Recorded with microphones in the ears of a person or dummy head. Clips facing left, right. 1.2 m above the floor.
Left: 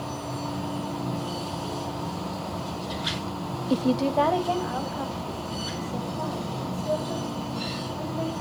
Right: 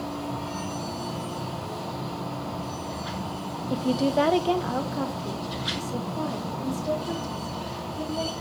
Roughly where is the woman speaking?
Left.